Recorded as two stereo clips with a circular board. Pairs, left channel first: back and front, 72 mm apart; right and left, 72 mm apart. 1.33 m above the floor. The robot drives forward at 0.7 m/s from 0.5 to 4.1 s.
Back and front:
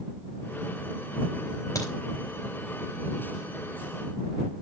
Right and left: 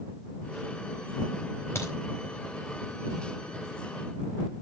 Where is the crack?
140° right, 4 m; by 1.9 s 145° right, 4 m.